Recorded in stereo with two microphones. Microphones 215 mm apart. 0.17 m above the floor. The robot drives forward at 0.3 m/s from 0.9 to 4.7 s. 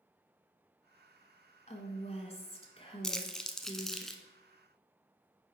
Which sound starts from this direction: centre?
Crumpling, at 3.0 s.